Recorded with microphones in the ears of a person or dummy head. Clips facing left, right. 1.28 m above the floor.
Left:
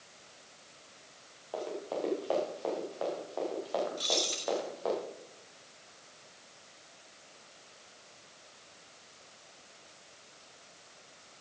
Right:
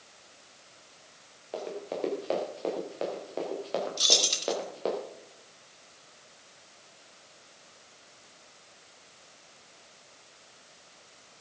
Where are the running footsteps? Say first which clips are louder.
Right 1 dB; 20° right (ahead or behind), 6 m; by 5.0 s 35° right (ahead or behind), 6.5 m.